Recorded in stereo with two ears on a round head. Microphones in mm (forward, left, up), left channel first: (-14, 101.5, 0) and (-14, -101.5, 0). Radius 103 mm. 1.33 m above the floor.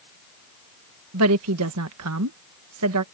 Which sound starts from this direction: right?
A woman speaking, at 1.1 s.